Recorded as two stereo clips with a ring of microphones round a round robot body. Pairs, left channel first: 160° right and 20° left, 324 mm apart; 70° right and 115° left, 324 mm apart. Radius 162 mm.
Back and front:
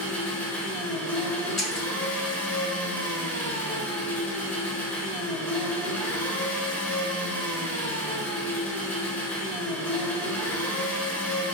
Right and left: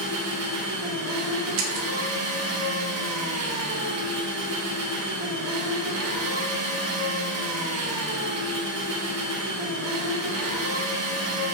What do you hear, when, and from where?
0.0 s an engine running: 120° left, 0.8 m
1.6 s breaking glass: 115° left, 0.8 m